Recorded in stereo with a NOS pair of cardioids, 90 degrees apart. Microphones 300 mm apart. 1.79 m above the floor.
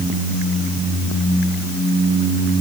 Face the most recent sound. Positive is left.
No sound to turn to.